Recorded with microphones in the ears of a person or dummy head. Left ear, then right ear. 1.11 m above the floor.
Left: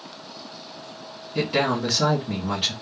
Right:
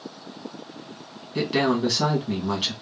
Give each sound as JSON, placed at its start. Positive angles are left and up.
{"t": 1.4, "sound": "a man speaking", "side_deg": -20, "distance_m": 0.9}